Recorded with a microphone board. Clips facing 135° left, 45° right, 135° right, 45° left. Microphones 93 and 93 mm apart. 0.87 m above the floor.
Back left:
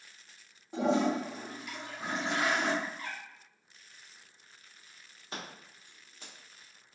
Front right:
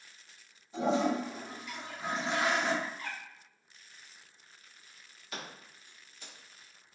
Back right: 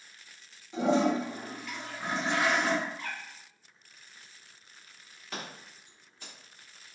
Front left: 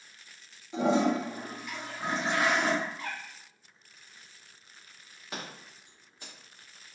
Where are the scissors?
110° left, 1.0 m.